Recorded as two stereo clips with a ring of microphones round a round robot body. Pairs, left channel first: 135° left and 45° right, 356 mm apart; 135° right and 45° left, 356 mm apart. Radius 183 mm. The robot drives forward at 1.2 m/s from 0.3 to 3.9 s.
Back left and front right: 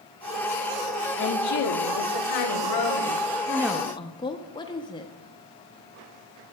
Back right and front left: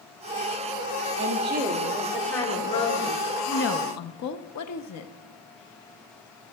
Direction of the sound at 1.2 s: 80° left.